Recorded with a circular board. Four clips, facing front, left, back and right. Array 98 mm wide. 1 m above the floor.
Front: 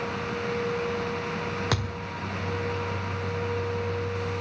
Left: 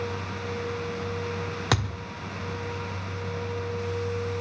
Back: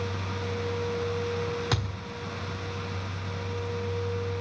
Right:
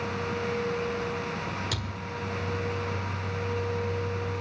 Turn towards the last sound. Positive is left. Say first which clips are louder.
# left 7 dB, front 2 dB
turn(degrees=70)